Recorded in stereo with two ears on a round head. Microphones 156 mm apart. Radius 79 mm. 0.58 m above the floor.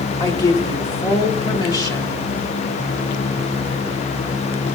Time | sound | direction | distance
0.2 | a woman speaking | 20° left (ahead or behind) | 1.6 m